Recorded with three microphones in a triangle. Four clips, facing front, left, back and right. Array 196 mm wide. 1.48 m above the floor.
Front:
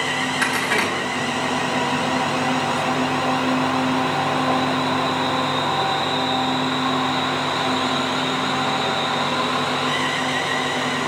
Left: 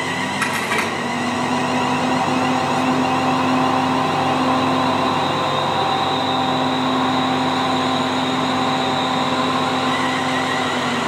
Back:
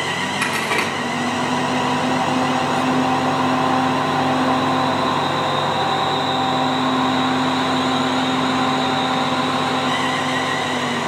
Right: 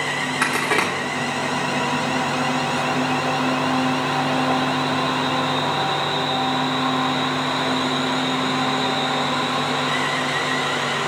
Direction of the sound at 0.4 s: 105° right.